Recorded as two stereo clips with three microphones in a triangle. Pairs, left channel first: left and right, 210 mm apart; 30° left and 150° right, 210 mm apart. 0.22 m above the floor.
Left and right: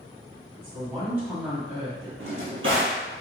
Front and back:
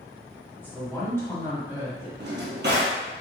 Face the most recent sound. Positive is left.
turn(degrees=-110)